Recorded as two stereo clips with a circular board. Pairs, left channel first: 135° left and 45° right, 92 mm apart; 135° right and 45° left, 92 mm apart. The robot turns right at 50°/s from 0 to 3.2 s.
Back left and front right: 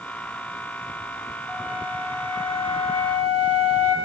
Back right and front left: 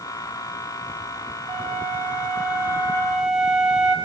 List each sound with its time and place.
1.5 s a flute: 125° right, 7.5 m; by 4.0 s 40° right, 7.5 m